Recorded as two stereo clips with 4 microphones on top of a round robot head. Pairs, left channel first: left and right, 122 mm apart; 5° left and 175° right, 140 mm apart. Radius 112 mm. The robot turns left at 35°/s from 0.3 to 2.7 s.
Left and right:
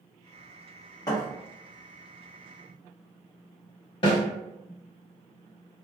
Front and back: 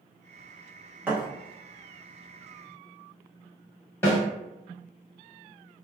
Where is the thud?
125° left, 0.5 m; by 1.3 s 115° left, 0.5 m.